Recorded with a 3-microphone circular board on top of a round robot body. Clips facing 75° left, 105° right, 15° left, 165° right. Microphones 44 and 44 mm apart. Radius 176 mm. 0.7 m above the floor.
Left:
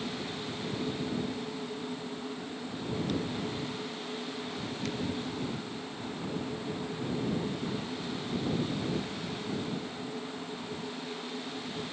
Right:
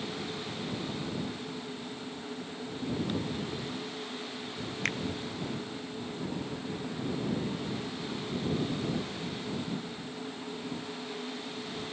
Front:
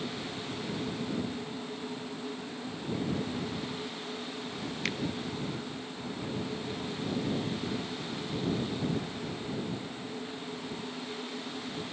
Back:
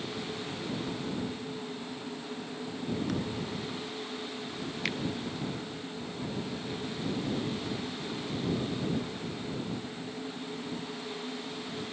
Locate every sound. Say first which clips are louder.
3.1 s a thud: left 1 dB, even; straight behind
4.8 s a finger snap: right 5 dB, back 1 dB; 80° right